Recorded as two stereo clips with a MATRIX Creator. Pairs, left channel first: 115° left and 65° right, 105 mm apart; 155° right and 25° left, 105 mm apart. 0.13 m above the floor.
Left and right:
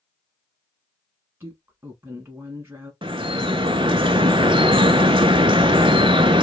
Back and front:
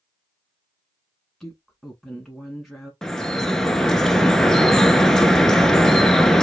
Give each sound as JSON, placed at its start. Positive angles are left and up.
{"t": 1.4, "sound": "a woman speaking", "azimuth_deg": -70, "distance_m": 1.1}
{"t": 3.0, "sound": "dripping", "azimuth_deg": -75, "distance_m": 0.6}